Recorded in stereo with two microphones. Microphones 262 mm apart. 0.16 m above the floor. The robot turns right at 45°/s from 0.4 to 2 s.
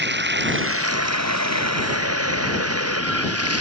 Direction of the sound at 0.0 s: 135° right.